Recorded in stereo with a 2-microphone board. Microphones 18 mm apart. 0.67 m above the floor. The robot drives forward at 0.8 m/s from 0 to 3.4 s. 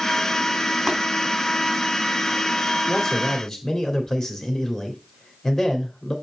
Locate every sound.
0.9 s tapping: 10° right (ahead or behind), 2.5 m
2.9 s a man speaking: 25° left (ahead or behind), 1.5 m; by 6.2 s 20° left (ahead or behind), 1.8 m